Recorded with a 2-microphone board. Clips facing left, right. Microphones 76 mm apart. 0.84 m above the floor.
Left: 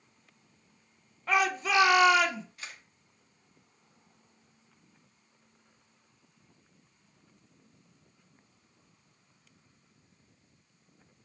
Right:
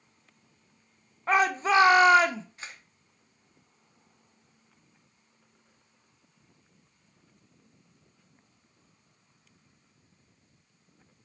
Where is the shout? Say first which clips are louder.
Right 4 dB; 35° right (ahead or behind), 0.6 m.